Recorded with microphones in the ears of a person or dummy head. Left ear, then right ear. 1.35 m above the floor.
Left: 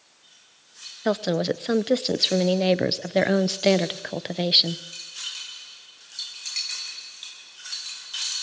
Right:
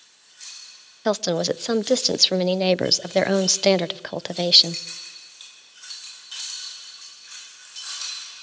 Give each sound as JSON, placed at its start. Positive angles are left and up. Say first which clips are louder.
{"t": 1.1, "sound": "a woman speaking", "louder": "right 2 dB", "side_deg": -25, "distance_m": 0.5}